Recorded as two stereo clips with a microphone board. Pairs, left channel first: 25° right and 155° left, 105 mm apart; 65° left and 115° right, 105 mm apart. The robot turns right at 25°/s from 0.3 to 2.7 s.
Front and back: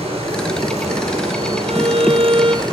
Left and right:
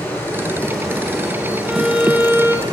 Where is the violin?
160° left, 1.4 m; by 2.6 s 175° right, 1.4 m.